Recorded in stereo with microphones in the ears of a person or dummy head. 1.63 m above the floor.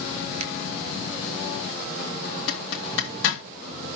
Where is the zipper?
80° left, 1.9 m.